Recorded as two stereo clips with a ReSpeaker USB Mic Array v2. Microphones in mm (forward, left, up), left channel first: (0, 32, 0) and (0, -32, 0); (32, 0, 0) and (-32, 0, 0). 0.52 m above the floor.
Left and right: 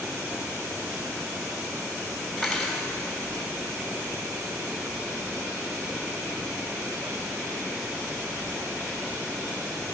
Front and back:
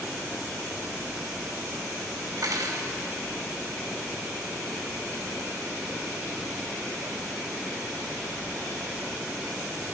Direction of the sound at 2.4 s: Straight behind.